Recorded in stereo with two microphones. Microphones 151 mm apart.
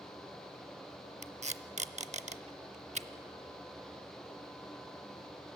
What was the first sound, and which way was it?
Tape being pulled, 50° right (ahead or behind).